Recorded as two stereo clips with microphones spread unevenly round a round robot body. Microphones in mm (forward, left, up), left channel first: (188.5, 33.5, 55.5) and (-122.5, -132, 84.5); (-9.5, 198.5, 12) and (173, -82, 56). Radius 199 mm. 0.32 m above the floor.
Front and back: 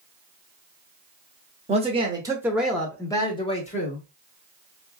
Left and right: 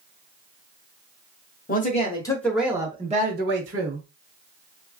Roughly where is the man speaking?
Behind left.